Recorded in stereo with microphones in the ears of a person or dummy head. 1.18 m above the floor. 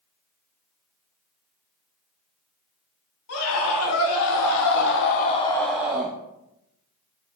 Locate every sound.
3.3 s a scream: 85° left, 3 m; by 6.2 s 25° right (ahead or behind), 1.2 m